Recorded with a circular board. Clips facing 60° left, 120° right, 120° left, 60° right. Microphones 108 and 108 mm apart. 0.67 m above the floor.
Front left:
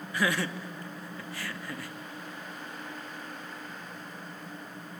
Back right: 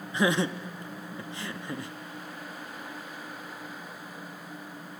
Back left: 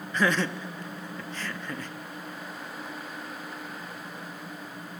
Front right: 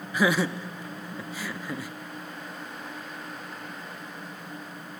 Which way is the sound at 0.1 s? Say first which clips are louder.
Back right 4 dB, front right 2 dB; 125° right.